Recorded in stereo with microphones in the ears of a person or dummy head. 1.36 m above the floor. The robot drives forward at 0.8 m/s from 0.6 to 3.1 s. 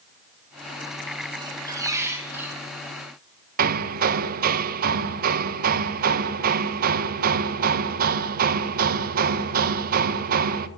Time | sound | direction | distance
1.4 | a squeak | 30° right (ahead or behind) | 0.7 m
3.6 | hammering | 50° right (ahead or behind) | 0.7 m